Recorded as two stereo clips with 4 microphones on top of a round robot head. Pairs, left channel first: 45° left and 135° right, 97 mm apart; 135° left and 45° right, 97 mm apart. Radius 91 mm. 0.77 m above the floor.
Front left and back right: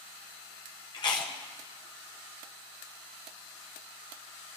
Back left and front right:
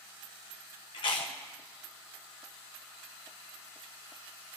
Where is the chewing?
90° left, 1.2 m.